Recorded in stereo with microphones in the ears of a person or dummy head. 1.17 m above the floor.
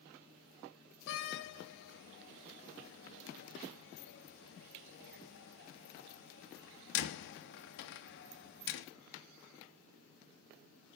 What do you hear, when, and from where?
1.1 s a door slam: 65° left (ahead or behind), 1.0 m